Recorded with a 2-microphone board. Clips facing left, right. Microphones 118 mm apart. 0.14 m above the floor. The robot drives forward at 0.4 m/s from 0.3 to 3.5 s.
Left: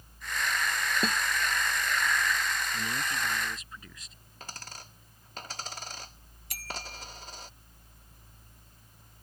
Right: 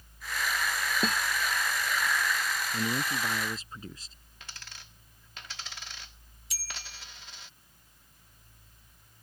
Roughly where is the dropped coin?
Left.